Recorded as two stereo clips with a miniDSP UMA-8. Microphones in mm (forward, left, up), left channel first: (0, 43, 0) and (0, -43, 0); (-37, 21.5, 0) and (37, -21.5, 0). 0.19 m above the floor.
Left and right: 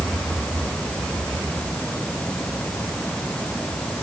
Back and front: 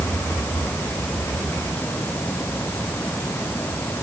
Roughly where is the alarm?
No alarm in this recording.